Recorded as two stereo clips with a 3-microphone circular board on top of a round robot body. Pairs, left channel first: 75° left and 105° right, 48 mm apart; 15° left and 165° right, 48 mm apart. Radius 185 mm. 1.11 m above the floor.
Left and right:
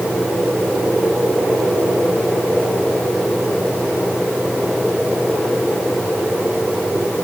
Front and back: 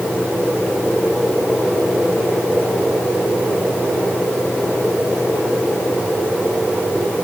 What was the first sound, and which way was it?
Only background noise.